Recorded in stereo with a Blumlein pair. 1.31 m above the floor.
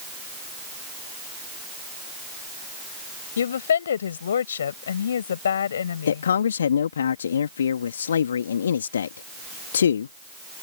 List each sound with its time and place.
3.4 s a woman speaking: 65° left
6.1 s a man speaking: 65° left